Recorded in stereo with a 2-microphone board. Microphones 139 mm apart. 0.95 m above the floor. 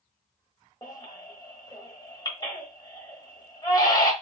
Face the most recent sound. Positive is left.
turn(degrees=30)  # may be behind; listen again after turning